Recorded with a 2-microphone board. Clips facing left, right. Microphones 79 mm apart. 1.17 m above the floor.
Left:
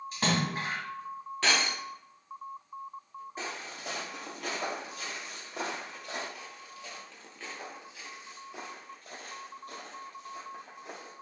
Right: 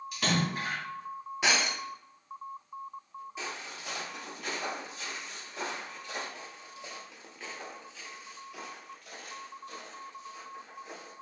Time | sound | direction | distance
0.1 | a splash | 35° left (ahead or behind) | 2.5 m
1.4 | breaking glass | 10° right (ahead or behind) | 0.9 m
3.4 | footsteps | 40° left (ahead or behind) | 1.5 m
6.3 | footsteps | 30° right (ahead or behind) | 1.3 m